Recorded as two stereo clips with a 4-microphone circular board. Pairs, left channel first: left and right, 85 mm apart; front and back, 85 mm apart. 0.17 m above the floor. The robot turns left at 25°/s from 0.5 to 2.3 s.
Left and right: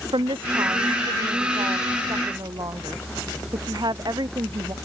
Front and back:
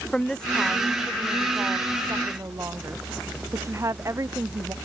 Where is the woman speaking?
80° right; by 4.7 s 125° right.